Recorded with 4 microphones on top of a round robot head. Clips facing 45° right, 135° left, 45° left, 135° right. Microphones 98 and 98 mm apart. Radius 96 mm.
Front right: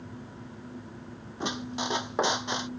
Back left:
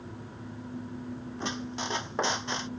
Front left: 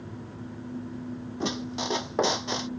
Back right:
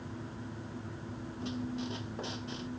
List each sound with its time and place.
1.4 s a squeak: 35° left